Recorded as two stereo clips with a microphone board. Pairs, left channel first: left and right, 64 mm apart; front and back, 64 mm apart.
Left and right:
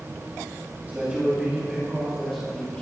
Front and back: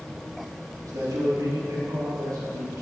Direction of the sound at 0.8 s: 150° right.